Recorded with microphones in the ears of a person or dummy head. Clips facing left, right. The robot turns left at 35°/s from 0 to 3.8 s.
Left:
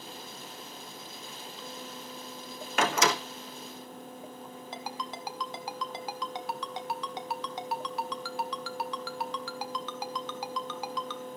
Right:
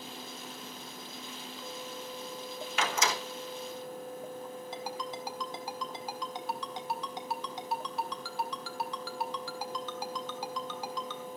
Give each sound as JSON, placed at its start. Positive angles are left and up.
{"t": 2.8, "sound": "a door slam", "side_deg": 40, "distance_m": 1.1}
{"t": 4.7, "sound": "a ringtone", "side_deg": 55, "distance_m": 1.5}